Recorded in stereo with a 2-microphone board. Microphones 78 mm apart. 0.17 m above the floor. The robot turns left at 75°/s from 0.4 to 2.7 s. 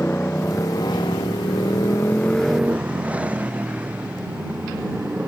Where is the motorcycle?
155° left; by 5.3 s 15° right.